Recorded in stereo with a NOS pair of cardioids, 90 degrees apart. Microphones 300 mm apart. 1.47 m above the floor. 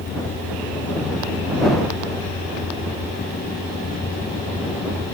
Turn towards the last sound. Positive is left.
turn(degrees=30)